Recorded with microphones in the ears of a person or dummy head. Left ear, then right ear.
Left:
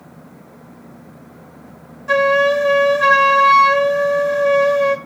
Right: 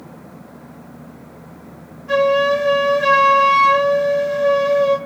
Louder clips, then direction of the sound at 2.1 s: Left 1 dB; 50° left (ahead or behind).